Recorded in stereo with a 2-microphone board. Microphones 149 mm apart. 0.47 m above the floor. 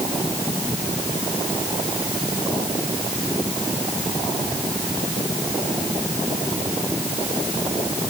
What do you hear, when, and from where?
Only background noise.